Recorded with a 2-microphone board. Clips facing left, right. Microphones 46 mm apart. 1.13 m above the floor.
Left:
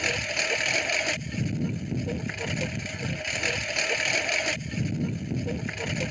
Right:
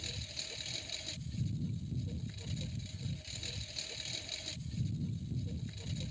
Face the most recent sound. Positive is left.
turn(degrees=70)  # may be behind; listen again after turning